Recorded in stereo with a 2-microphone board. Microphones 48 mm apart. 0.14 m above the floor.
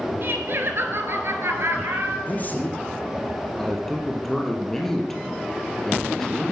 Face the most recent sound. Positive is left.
turn(degrees=5)  # may be behind; listen again after turning